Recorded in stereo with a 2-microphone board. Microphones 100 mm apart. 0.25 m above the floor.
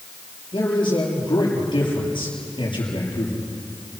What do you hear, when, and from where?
0.5 s a man speaking: 55° left (ahead or behind), 7.5 m